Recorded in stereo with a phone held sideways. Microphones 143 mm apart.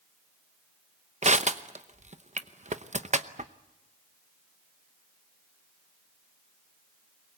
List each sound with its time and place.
1.2 s crushing: 55° right (ahead or behind), 0.8 m